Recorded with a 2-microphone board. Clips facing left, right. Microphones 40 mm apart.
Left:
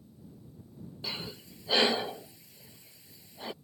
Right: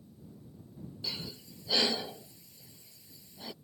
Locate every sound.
1.0 s breathing: 25° left (ahead or behind)